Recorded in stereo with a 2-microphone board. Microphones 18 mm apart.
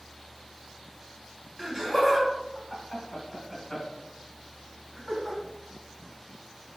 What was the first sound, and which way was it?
Laughter, 25° right (ahead or behind).